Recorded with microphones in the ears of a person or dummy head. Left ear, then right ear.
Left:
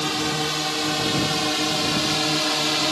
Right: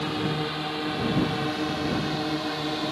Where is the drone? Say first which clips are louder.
Left 5 dB; 80° left; by 2.9 s 70° left (ahead or behind).